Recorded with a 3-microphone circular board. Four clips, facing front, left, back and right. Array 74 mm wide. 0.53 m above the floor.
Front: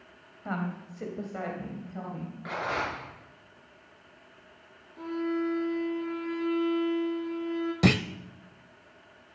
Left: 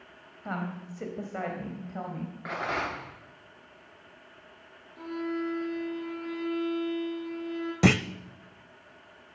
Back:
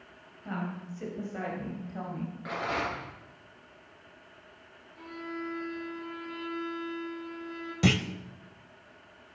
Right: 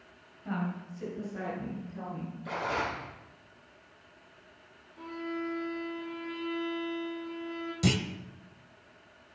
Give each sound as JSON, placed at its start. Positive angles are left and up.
{"t": 0.5, "sound": "a woman speaking", "azimuth_deg": 45, "distance_m": 3.0}
{"t": 2.5, "sound": "a rattle", "azimuth_deg": 80, "distance_m": 9.0}
{"t": 5.0, "sound": "a violin", "azimuth_deg": 40, "distance_m": 5.0}
{"t": 7.8, "sound": "a clunk", "azimuth_deg": 70, "distance_m": 0.5}